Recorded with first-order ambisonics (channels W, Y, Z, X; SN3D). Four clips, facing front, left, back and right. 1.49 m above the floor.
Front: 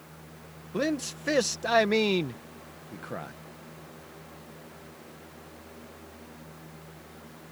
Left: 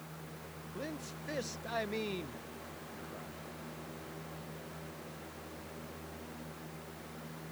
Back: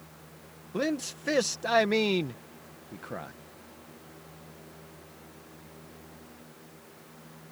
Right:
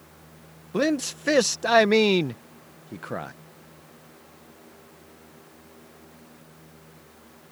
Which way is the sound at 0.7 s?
85° right.